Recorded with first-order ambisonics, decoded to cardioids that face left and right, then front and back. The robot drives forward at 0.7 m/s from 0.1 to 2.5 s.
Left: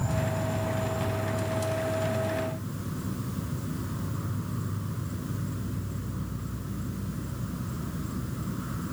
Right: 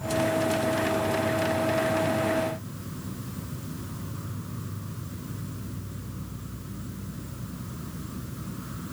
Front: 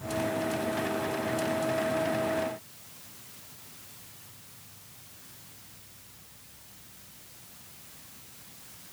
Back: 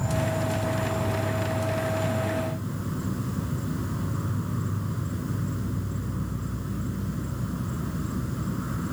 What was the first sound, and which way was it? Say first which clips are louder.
An insect: right 6 dB, back 2 dB; 150° left.